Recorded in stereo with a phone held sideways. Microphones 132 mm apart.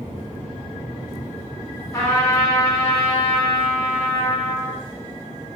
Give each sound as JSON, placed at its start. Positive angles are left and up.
{"t": 1.9, "sound": "a trumpet", "side_deg": 25, "distance_m": 1.0}